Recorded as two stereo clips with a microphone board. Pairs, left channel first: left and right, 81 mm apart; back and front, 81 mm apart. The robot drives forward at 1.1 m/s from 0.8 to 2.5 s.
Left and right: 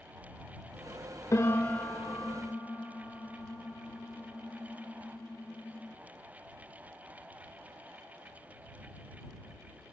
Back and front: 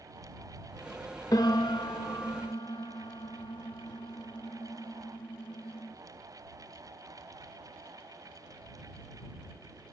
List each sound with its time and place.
1.3 s a piano: 140° left, 0.5 m; by 5.9 s 170° left, 1.7 m